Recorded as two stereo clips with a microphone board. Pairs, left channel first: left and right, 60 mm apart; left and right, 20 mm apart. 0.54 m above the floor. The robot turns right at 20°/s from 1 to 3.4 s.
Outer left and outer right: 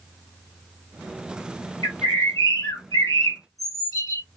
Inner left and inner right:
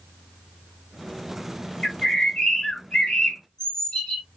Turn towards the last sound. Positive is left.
turn(degrees=75)  # may be behind; listen again after turning